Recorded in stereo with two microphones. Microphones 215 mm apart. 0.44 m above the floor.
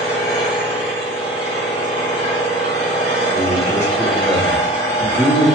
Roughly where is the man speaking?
Centre.